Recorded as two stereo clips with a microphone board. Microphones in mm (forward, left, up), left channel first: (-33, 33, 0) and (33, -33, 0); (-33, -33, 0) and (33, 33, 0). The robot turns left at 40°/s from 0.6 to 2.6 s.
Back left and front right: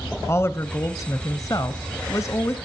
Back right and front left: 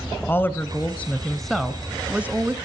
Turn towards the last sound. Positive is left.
turn(degrees=95)